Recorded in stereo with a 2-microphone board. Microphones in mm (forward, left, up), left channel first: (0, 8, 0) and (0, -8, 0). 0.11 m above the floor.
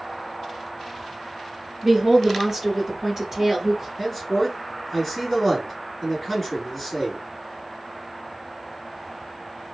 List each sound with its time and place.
1.8 s a woman speaking: 30° right (ahead or behind), 1.5 m
4.0 s a man speaking: centre (ahead or behind), 1.3 m